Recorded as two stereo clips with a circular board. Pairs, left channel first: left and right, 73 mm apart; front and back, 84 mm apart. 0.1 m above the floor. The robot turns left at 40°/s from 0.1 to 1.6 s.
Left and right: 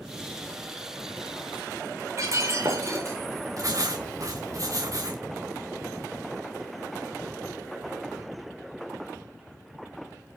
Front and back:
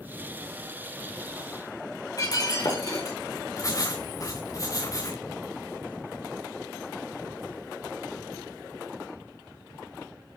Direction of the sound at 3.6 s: 50° right.